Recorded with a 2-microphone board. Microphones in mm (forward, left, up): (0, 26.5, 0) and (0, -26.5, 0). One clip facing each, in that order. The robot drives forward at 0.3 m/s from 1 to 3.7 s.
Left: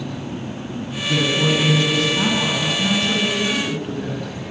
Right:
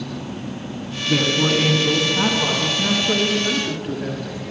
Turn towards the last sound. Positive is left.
turn(degrees=-10)  # may be behind; listen again after turning